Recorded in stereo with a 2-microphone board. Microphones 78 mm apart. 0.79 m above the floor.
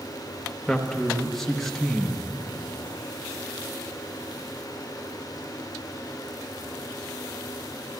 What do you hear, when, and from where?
0.7 s a man speaking: 5° left (ahead or behind), 0.8 m